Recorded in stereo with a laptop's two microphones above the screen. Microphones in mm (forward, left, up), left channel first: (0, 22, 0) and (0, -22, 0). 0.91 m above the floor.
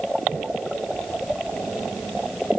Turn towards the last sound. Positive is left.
No sound to turn to.